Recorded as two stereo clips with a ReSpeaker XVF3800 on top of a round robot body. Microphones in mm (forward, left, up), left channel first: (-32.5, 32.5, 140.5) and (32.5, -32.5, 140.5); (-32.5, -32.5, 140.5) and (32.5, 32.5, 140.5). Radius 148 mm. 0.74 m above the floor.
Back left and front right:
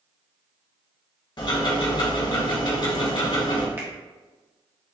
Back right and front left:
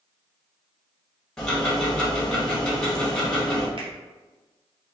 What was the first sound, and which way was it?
Ticking, 145° left.